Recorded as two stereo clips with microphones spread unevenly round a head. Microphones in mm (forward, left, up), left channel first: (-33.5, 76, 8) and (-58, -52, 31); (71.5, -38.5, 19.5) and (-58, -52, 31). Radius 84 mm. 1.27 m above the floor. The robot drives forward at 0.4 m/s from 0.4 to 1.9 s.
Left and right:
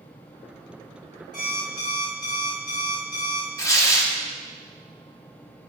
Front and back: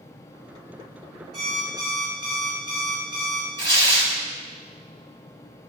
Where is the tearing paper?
145° left, 1.2 m.